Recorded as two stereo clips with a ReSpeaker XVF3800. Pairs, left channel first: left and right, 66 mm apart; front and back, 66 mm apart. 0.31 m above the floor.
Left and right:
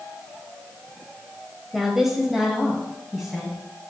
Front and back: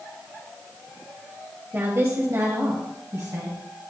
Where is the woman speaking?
170° right, 1.1 m.